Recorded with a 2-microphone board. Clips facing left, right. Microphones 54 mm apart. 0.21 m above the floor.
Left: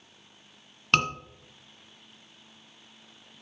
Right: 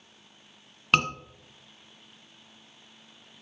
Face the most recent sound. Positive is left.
turn(degrees=-10)  # may be behind; listen again after turning